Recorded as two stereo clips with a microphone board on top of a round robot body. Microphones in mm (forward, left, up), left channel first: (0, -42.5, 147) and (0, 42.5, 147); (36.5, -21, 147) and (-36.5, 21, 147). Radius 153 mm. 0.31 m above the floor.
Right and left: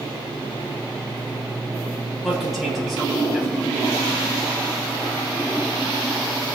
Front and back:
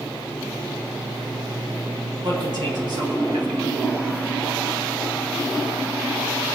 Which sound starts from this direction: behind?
A man speaking, at 2.2 s.